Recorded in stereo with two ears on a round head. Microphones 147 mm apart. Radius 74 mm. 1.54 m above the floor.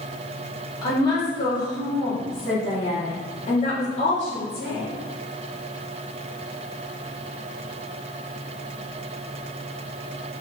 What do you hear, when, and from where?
0.8 s a woman speaking: 25° left (ahead or behind), 4.5 m; by 4.9 s 55° left (ahead or behind), 4.5 m